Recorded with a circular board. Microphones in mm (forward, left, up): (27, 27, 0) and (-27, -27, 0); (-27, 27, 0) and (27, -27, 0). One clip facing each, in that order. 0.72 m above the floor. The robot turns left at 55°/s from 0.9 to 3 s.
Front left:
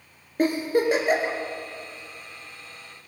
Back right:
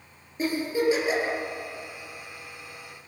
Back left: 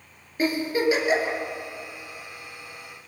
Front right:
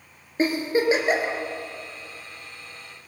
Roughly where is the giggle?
Ahead.